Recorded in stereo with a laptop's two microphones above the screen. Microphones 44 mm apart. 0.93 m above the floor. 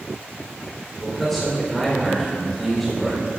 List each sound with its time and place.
1.0 s a man speaking: 5° left (ahead or behind), 3.5 m